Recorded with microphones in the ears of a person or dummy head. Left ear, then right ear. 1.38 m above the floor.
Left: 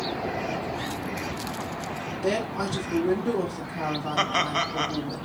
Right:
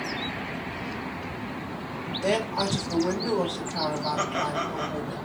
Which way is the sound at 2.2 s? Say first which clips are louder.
Right 2 dB; 70° right (ahead or behind).